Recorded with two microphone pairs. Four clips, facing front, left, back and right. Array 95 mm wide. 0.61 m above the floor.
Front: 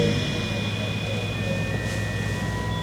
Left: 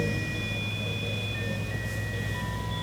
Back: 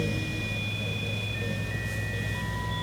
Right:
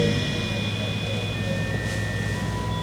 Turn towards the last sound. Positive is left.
No sound to turn to.